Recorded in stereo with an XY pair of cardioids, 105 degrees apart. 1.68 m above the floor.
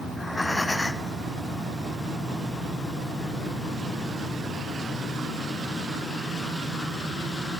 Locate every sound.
0.1 s breathing: 10° left, 1.5 m